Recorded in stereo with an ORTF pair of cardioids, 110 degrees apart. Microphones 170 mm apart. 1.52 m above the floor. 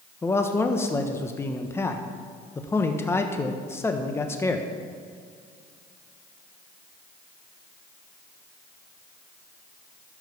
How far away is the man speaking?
About 1.1 m.